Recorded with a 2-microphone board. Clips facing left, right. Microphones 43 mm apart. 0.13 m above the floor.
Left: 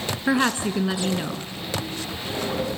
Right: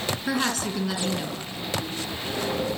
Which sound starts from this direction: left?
A woman speaking, at 0.3 s.